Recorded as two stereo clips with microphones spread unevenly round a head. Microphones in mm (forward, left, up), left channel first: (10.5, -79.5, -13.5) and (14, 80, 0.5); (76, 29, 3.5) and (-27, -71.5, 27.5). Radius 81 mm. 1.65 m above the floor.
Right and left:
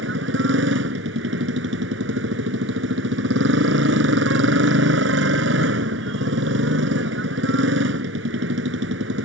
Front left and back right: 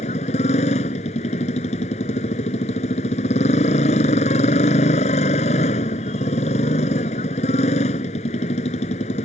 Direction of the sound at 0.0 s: 100° left.